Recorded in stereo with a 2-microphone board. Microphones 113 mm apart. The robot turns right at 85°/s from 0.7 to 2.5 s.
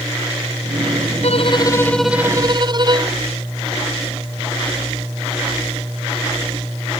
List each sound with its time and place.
1.2 s a violin: 110° left; by 3.2 s 140° right